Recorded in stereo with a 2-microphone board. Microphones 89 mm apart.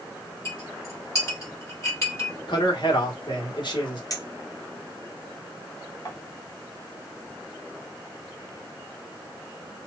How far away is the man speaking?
About 1.3 m.